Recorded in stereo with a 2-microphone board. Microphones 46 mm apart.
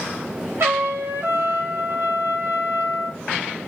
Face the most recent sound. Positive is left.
turn(degrees=-60)  # may be behind; listen again after turning